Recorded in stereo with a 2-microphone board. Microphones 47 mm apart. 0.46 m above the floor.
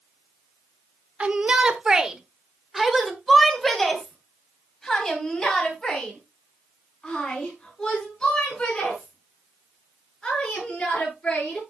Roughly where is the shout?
Right.